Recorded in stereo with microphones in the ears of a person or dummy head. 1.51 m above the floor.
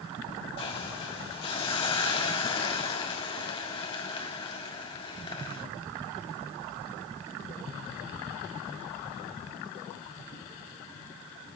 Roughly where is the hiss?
Left.